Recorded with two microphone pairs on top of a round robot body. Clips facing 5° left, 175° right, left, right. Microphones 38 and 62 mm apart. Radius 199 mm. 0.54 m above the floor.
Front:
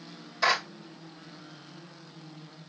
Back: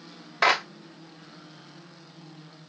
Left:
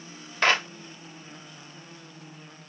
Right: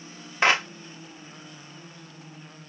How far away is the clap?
About 1.7 m.